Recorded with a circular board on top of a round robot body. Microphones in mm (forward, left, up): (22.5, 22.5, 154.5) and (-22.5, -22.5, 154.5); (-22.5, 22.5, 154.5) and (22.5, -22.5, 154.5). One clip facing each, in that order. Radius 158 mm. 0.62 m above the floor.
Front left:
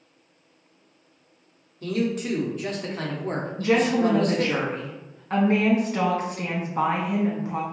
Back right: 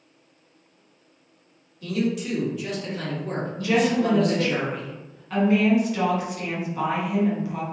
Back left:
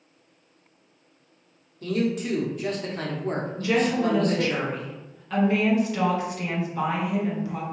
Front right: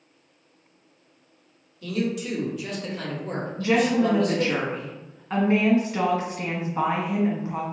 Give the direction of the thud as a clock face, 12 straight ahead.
I don't hear a thud.